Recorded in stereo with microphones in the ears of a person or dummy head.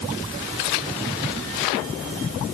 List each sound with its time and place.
Only background noise.